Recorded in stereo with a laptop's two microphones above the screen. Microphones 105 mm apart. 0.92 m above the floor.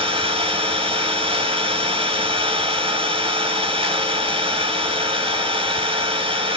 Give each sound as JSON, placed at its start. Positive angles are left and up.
{"t": 0.0, "sound": "an engine running", "side_deg": -60, "distance_m": 2.5}